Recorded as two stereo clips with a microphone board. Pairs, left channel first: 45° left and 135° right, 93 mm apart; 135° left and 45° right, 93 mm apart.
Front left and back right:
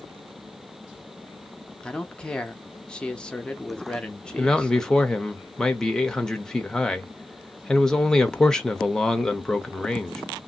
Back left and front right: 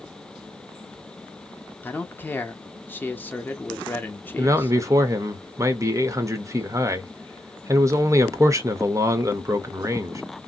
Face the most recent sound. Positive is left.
turn(degrees=-35)